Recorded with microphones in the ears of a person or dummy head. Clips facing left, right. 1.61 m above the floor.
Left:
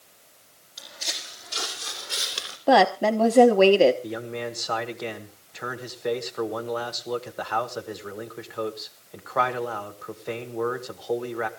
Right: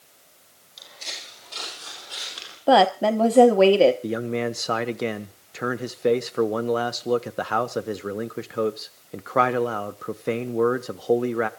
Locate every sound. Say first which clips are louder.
0.8 s footsteps: left 3 dB; 5° left (ahead or behind), 4.5 m; by 2.6 s 35° left (ahead or behind), 3.5 m
2.7 s a woman speaking: right 1 dB; centre (ahead or behind), 1.0 m
4.0 s a man speaking: right 6 dB; 45° right (ahead or behind), 1.1 m